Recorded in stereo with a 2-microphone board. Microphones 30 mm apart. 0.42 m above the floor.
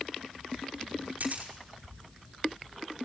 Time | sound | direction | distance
1.2 | a camera shutter | 55° right (ahead or behind) | 5.5 m